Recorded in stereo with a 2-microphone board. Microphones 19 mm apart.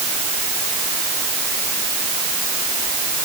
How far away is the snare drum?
No snare drum in this recording.